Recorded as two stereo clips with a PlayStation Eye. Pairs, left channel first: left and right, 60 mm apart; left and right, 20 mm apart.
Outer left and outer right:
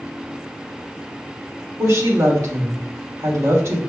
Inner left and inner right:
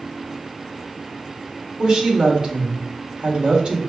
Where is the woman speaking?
55° right (ahead or behind), 1.8 m.